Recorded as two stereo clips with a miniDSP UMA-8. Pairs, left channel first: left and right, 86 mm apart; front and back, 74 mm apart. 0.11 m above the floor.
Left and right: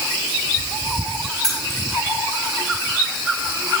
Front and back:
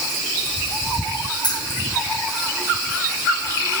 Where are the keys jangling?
5° left, 7 m.